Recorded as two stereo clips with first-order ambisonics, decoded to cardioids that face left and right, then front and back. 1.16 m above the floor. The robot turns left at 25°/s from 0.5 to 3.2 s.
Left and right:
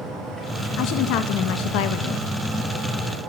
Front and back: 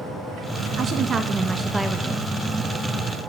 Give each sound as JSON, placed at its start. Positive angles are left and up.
{"t": 0.8, "sound": "a woman speaking", "azimuth_deg": 125, "distance_m": 1.5}